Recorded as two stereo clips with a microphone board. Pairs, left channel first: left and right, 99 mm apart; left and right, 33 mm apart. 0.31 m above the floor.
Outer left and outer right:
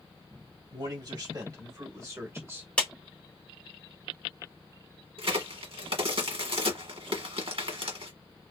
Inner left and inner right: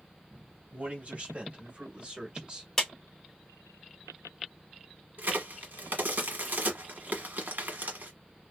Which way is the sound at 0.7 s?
45° right (ahead or behind).